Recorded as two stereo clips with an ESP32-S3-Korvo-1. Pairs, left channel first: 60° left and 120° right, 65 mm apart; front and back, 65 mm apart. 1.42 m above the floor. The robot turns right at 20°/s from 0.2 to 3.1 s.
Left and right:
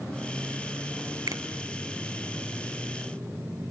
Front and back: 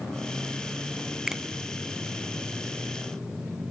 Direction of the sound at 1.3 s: 100° right.